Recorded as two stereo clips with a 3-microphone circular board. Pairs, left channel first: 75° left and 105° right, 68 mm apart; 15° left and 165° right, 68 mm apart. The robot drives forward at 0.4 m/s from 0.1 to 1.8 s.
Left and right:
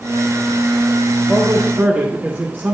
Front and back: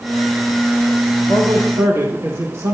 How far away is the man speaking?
About 1.1 m.